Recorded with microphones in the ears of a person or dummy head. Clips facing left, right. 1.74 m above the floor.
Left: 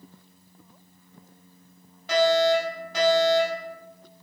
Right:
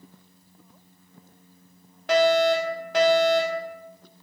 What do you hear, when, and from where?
2.1 s a fire alarm: 55° right (ahead or behind), 3.5 m